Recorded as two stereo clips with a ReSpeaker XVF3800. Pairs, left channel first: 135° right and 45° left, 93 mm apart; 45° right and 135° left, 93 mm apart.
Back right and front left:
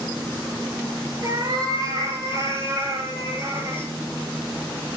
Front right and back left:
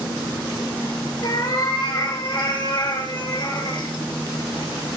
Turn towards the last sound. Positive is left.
turn(degrees=-15)